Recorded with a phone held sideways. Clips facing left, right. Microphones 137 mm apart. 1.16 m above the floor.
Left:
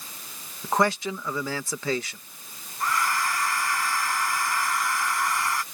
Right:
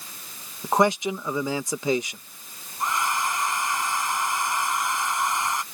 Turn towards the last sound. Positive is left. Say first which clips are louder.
# even
turn(degrees=-20)  # may be behind; listen again after turning